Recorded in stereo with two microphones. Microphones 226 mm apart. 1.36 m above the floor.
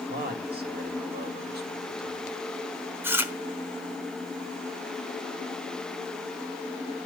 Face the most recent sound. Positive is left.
turn(degrees=-10)  # may be behind; listen again after turning